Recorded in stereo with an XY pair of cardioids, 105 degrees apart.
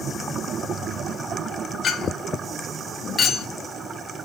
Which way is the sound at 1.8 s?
55° left.